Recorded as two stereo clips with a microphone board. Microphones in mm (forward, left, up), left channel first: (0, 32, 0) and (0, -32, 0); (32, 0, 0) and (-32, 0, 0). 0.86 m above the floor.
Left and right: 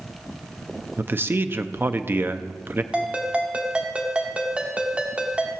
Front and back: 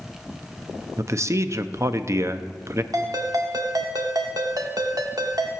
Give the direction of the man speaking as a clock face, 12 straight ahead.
5 o'clock.